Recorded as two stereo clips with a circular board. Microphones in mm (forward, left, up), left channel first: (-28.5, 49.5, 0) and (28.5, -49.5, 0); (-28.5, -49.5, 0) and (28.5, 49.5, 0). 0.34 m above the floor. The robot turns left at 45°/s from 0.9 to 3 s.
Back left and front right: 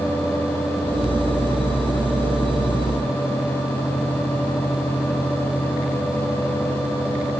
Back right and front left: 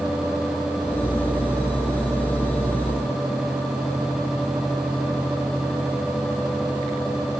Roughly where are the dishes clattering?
I don't hear dishes clattering.